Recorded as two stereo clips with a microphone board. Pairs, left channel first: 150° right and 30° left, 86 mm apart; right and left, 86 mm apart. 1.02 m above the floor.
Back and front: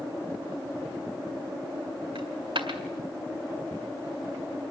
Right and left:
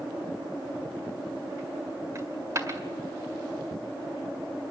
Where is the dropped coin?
35° left, 1.8 m.